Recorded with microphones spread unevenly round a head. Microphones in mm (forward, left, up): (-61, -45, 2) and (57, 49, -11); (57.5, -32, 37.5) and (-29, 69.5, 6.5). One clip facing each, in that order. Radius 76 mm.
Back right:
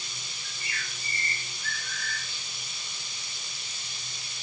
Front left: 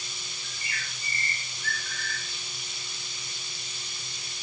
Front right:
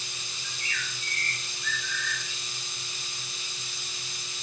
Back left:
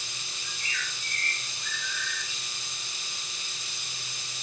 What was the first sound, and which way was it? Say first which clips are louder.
A bird: even, even; 70° left.